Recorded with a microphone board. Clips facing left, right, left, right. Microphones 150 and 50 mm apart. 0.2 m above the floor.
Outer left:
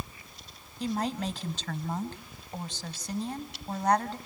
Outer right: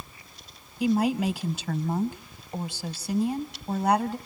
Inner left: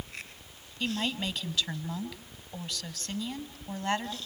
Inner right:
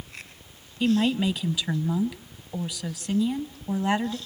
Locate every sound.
0.8 s a woman speaking: 10° right (ahead or behind), 1.3 m